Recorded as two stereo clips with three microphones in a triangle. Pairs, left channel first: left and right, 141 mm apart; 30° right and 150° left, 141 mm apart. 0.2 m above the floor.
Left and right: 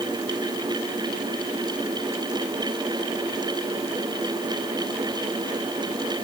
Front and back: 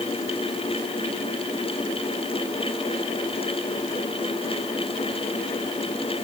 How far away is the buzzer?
No buzzer in this recording.